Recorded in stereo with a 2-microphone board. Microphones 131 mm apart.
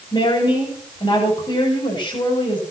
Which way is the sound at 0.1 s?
40° left (ahead or behind).